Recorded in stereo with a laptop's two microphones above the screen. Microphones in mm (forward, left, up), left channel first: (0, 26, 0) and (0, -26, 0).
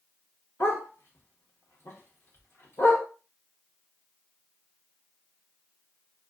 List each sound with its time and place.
0.6 s a dog barking: 55° left (ahead or behind), 0.8 m